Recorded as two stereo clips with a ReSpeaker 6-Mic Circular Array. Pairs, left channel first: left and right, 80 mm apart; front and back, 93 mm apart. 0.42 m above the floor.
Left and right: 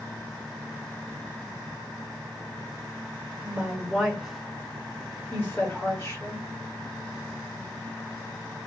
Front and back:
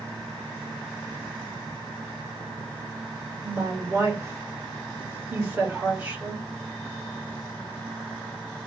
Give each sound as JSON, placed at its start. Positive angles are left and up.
{"t": 3.4, "sound": "a woman speaking", "azimuth_deg": -155, "distance_m": 1.5}